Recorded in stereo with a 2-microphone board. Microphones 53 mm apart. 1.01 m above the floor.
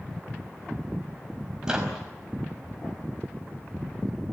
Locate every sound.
1.6 s a microwave: 15° right (ahead or behind), 5.5 m